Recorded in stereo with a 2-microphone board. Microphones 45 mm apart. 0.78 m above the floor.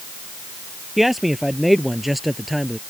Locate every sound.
1.0 s a man speaking: 5° right (ahead or behind)